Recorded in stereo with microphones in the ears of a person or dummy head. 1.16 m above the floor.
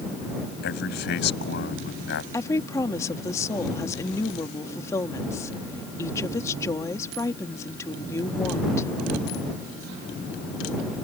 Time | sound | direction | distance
0.6 | a man speaking | 60° left (ahead or behind) | ?
2.3 | a woman speaking | 15° left (ahead or behind) | ?